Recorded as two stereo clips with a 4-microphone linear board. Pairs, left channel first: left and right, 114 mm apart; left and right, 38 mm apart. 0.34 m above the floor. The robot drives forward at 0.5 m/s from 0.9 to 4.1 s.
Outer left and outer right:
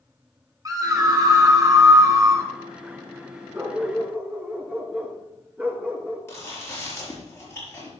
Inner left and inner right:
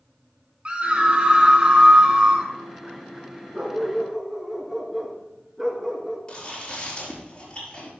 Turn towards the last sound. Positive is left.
turn(degrees=20)  # may be behind; listen again after turning